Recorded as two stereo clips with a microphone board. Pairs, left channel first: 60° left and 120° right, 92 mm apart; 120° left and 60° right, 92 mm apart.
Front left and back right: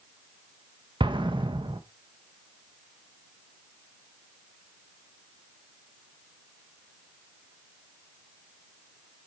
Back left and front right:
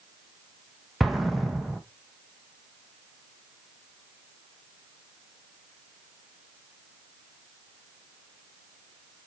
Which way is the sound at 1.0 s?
150° right.